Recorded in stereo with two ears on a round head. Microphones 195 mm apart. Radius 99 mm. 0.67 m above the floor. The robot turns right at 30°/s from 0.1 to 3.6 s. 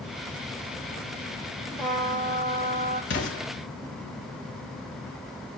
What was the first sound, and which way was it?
A trumpet, straight ahead.